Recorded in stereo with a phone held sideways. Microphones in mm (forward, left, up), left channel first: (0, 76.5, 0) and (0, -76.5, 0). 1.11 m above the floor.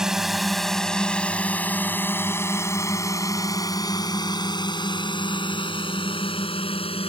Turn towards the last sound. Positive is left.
turn(degrees=40)  # may be behind; listen again after turning